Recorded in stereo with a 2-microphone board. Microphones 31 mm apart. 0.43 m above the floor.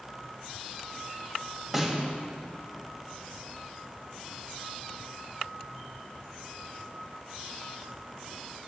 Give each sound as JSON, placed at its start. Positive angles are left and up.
{"t": 1.7, "sound": "a snare drum", "side_deg": -10, "distance_m": 2.5}